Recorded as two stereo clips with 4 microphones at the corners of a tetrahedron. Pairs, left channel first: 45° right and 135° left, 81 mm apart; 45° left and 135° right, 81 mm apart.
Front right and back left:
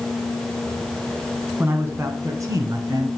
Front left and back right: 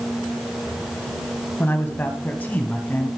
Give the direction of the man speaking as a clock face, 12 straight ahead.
9 o'clock.